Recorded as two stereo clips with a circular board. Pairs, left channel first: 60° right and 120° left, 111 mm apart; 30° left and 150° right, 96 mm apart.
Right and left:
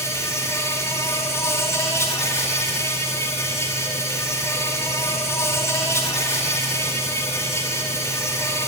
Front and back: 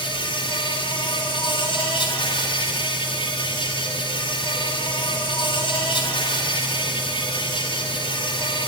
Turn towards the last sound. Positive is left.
turn(degrees=5)